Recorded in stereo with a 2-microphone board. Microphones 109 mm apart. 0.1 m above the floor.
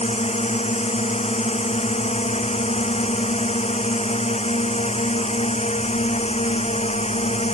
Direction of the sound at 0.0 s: 75° left (ahead or behind).